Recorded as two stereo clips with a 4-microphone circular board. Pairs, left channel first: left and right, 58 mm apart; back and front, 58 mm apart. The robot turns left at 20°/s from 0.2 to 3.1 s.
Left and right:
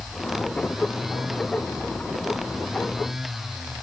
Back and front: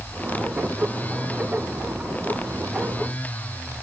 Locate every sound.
Only background noise.